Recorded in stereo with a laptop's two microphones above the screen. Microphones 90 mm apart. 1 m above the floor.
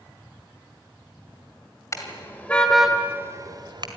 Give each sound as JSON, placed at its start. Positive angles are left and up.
{"t": 1.9, "sound": "a car horn", "side_deg": 35, "distance_m": 2.0}